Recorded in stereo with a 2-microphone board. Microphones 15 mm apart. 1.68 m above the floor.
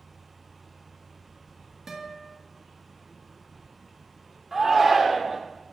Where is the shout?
10° right (ahead or behind), 0.8 m.